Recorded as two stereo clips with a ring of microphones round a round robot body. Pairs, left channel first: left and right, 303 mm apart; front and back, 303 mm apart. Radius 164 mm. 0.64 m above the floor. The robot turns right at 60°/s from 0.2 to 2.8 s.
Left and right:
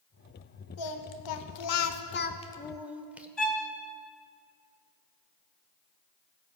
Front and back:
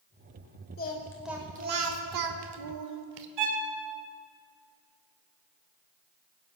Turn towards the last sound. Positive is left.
turn(degrees=180)